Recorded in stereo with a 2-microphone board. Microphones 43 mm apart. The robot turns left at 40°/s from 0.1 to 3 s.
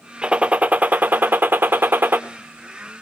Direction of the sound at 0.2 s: 30° right.